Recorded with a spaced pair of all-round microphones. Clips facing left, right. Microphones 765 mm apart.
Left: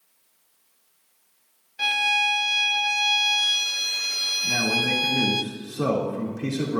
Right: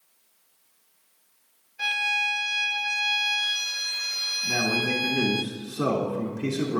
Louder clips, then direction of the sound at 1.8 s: Left 6 dB; 65° left (ahead or behind).